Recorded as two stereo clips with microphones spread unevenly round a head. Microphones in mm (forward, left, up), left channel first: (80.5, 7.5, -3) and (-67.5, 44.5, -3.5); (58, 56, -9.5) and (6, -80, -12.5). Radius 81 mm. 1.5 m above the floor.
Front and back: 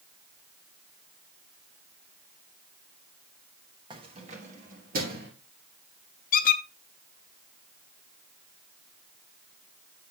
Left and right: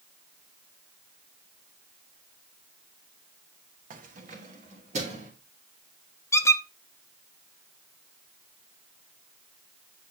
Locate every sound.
3.9 s keys jangling: 135° right, 1.1 m; by 5.3 s 160° right, 2.5 m
6.3 s a squeak: straight ahead, 0.6 m